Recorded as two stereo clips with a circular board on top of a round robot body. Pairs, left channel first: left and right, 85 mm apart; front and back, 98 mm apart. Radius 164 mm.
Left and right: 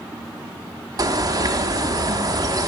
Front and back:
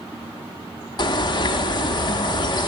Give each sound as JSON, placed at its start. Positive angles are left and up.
{"t": 1.0, "sound": "a bird", "azimuth_deg": -45, "distance_m": 0.5}